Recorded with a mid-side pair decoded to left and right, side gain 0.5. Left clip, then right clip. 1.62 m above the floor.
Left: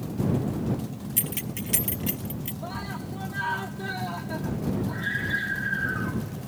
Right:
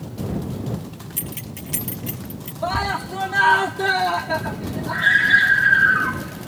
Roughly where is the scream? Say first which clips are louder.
Right 15 dB; right.